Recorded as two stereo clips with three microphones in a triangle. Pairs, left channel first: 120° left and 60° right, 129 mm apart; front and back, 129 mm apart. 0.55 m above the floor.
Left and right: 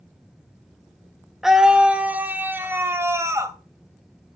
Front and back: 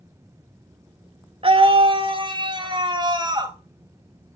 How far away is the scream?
About 1.5 m.